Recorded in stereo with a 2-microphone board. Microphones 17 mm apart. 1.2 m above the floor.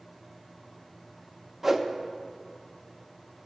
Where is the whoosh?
15° right (ahead or behind), 0.6 m.